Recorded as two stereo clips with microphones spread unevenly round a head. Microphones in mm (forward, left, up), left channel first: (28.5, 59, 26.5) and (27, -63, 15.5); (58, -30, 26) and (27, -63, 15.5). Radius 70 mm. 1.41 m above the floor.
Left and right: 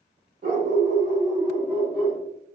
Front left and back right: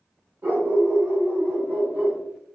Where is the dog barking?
100° right, 1.3 m; by 2.2 s 150° left, 1.0 m.